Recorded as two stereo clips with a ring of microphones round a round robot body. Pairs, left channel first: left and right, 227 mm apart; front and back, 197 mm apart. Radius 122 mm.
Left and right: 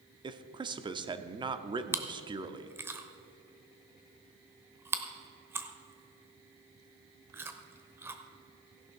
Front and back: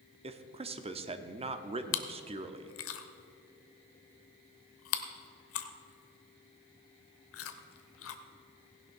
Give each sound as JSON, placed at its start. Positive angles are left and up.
{"t": 0.2, "sound": "a man speaking", "azimuth_deg": -145, "distance_m": 0.8}
{"t": 1.9, "sound": "chewing", "azimuth_deg": -10, "distance_m": 0.9}